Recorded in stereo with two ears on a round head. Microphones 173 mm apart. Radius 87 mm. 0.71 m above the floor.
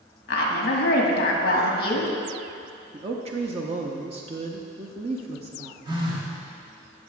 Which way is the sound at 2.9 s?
30° right (ahead or behind).